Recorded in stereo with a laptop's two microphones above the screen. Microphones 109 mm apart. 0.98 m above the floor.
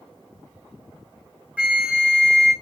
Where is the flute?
15° right (ahead or behind), 1.7 m.